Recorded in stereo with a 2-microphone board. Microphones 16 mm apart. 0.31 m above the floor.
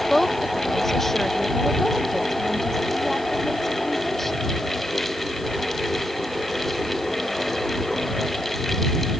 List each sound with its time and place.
0.1 s a woman speaking: 15° left (ahead or behind)